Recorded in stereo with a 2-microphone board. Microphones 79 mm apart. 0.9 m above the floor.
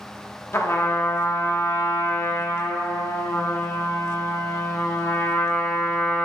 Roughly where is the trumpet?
Left.